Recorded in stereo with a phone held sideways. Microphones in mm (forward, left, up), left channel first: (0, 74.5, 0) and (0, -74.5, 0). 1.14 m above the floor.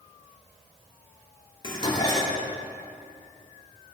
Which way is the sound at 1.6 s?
30° left (ahead or behind).